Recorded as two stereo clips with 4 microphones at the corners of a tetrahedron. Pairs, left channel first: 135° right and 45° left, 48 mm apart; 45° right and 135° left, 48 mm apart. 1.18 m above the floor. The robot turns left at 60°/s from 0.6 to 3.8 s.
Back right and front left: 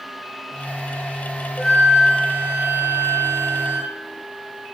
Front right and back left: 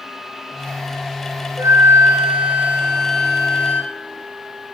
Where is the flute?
145° left, 2 m; by 3.9 s 15° left, 2 m.